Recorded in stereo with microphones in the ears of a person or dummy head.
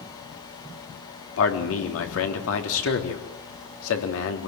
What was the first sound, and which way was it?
A man speaking, 80° left.